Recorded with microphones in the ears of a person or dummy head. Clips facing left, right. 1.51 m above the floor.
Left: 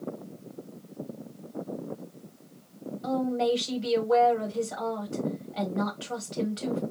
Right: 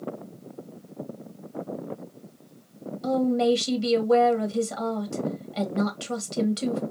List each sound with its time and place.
3.0 s a woman speaking: 65° right (ahead or behind), 1.9 m